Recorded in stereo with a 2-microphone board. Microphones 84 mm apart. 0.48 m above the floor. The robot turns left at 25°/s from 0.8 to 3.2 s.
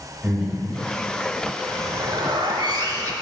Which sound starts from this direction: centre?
Breathing, at 0.2 s.